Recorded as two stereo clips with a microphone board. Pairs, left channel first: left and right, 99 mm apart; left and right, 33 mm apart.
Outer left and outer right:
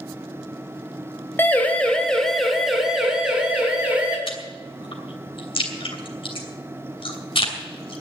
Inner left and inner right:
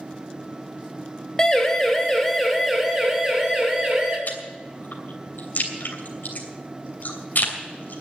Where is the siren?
20° left (ahead or behind), 2.5 m; by 4.2 s 15° right (ahead or behind), 4.5 m.